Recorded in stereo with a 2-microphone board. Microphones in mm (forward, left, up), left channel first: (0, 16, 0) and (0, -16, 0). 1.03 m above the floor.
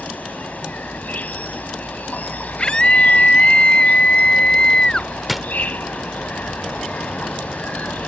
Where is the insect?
60° left (ahead or behind).